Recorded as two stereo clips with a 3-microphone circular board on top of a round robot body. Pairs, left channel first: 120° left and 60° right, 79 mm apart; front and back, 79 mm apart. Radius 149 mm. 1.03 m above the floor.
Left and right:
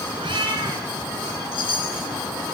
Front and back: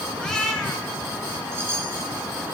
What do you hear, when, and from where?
0.2 s a cat meowing: 80° right, 3 m
1.5 s a chime: 120° left, 3 m